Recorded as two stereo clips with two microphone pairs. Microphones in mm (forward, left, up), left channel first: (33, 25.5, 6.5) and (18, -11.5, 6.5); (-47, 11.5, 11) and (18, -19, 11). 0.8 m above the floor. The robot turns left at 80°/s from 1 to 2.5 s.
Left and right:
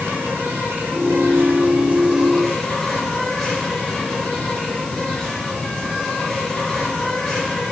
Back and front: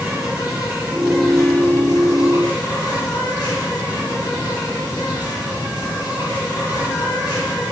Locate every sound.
0.0 s an insect: 100° right, 4 m; by 7.7 s 140° left, 4 m